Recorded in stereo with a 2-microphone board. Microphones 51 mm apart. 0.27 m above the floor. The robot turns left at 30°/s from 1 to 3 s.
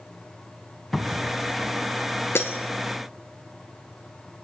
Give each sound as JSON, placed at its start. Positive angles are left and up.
{"t": 0.9, "sound": "a cupboard door", "side_deg": 5, "distance_m": 0.8}
{"t": 2.4, "sound": "breaking glass", "side_deg": 55, "distance_m": 1.4}